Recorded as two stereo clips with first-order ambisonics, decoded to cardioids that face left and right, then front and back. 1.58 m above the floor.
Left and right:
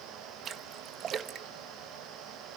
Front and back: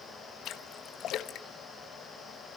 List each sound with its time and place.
0.5 s a splash: 40° right, 1.1 m